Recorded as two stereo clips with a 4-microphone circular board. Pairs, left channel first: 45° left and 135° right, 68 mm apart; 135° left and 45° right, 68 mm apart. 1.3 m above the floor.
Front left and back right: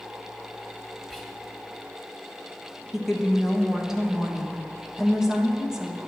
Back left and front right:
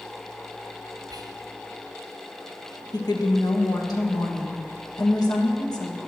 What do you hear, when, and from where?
1.1 s whispering: 50° right, 1.0 m
2.9 s a woman speaking: 140° left, 1.4 m